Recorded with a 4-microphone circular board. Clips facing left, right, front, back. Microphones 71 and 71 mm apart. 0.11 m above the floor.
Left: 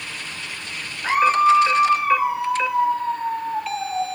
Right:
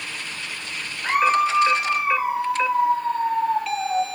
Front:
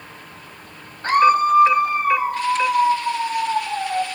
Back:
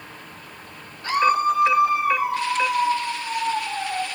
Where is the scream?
5° left, 1.9 m; by 4.0 s 60° right, 4.5 m.